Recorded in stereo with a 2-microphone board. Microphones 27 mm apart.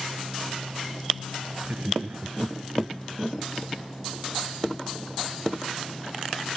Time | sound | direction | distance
1.6 | laughter | 45° right (ahead or behind) | ?